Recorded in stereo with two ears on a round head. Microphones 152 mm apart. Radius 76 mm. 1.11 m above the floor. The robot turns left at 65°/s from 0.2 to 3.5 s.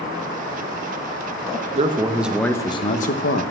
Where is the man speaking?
140° right, 1.0 m; by 3.4 s 110° left, 1.0 m.